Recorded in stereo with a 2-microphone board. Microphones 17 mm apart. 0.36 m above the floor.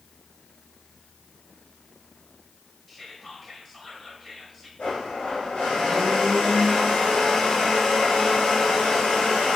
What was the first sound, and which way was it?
Whispering, 5° left (ahead or behind).